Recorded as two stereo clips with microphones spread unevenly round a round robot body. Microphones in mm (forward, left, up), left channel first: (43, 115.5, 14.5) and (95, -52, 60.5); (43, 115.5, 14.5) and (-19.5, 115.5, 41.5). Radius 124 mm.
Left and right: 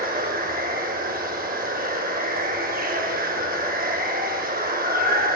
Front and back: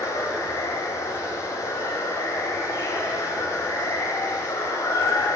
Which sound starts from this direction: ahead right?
Running water, at 0.0 s.